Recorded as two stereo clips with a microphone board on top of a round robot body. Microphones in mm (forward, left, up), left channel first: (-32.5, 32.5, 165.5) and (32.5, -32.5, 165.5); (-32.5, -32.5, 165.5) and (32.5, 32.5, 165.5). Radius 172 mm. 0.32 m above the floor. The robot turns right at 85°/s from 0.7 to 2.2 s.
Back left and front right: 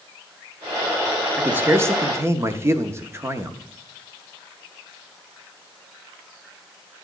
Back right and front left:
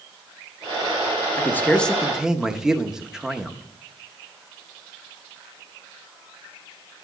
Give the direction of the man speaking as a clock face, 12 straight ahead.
3 o'clock.